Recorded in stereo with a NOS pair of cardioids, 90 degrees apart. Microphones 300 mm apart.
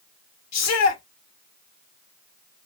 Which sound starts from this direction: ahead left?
A shout, at 0.5 s.